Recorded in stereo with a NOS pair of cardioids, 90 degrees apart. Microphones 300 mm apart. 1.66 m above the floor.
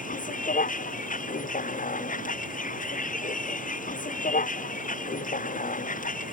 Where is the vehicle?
25° left.